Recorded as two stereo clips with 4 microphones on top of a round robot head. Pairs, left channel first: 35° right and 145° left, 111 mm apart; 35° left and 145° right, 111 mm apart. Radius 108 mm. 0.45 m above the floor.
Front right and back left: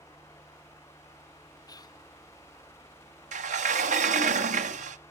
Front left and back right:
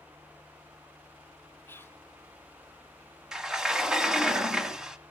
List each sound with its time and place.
1.7 s whispering: 20° right, 1.0 m
3.3 s a sliding door: 130° left, 0.6 m